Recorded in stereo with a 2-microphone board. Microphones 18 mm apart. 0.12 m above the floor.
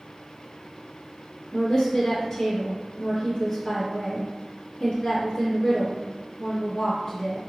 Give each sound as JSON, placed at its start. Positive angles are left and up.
{"t": 1.5, "sound": "a woman speaking", "side_deg": 20, "distance_m": 1.7}